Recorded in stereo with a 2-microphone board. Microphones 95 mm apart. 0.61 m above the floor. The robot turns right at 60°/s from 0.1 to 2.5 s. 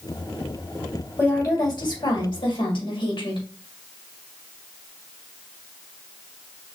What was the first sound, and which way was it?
A woman speaking, 20° left.